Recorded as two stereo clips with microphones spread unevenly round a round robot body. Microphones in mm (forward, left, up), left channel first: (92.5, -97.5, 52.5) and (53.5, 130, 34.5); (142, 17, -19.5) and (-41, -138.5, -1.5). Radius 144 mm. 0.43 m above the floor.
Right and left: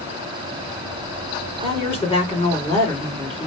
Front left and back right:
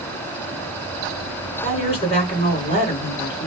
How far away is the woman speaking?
About 2 m.